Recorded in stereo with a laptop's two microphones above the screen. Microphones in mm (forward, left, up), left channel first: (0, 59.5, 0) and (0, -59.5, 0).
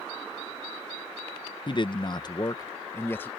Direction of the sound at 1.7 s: 40° left (ahead or behind).